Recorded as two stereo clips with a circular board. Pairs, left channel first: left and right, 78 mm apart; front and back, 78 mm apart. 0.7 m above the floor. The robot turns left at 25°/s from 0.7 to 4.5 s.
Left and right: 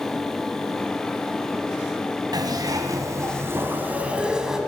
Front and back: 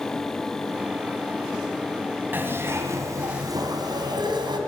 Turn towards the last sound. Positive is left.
turn(degrees=-170)